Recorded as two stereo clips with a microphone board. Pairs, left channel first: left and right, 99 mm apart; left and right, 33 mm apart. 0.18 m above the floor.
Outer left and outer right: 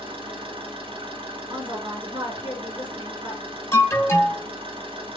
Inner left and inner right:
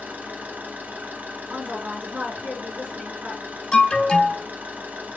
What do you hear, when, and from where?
0.0 s an engine running: 65° right (ahead or behind), 1.2 m
1.5 s a woman speaking: 55° right (ahead or behind), 2.5 m
3.7 s an alarm: 25° left (ahead or behind), 1.0 m